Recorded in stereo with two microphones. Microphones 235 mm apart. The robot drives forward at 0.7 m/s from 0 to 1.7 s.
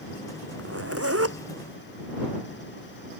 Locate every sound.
0.6 s a zipper: 75° right (ahead or behind); by 1.4 s 80° right